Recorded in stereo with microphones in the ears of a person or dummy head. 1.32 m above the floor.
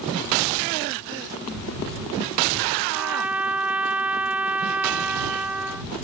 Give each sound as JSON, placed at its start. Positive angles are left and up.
{"t": 2.9, "sound": "a trumpet", "side_deg": -5}